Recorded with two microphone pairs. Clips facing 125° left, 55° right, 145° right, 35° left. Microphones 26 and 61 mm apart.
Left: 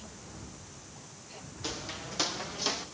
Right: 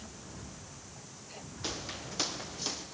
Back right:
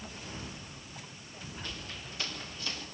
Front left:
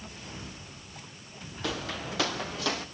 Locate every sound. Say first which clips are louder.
1.6 s footsteps: left 1 dB, front left 14 dB; 20° left, 1.7 m; by 2.9 s 55° left, 1.8 m